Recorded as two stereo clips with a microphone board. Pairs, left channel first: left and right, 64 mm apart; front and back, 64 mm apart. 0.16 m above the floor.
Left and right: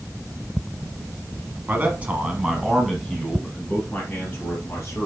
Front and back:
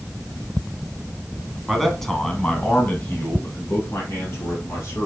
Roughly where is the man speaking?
Right.